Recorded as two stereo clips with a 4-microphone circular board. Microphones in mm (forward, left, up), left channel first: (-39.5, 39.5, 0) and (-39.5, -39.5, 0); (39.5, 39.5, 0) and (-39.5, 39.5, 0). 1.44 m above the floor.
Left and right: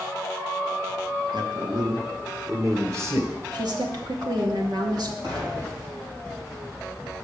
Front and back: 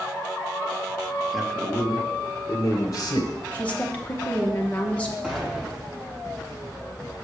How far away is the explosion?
About 3.5 m.